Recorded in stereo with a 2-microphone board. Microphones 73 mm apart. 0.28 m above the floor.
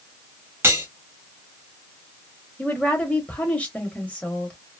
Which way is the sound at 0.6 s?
35° right (ahead or behind).